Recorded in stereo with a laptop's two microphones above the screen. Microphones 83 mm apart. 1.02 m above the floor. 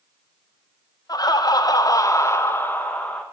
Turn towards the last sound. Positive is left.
turn(degrees=15)  # may be behind; listen again after turning